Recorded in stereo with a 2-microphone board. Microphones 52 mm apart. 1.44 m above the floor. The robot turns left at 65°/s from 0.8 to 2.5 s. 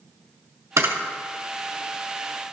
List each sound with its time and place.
0.8 s a camera shutter: 70° right (ahead or behind), 2 m; by 0.9 s 60° right (ahead or behind), 2 m